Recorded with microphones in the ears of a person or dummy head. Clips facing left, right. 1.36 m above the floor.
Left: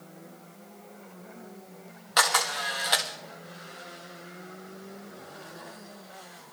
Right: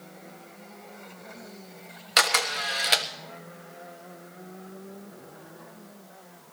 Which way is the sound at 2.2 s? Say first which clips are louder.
Even; 35° right (ahead or behind).